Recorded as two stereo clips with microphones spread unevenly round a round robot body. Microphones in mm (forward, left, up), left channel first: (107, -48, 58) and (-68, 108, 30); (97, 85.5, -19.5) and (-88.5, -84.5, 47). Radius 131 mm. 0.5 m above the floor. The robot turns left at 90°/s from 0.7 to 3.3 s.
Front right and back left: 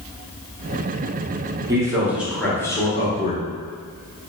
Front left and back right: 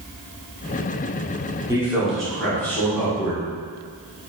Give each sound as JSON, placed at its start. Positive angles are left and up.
{"t": 1.7, "sound": "a man speaking", "azimuth_deg": 125, "distance_m": 0.9}